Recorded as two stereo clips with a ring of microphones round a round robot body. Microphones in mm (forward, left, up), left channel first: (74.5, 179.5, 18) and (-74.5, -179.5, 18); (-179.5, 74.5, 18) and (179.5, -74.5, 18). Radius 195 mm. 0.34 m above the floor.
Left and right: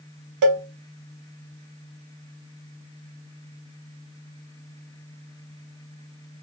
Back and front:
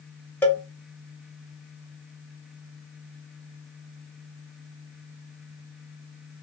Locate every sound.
0.4 s a cowbell: 120° right, 1.0 m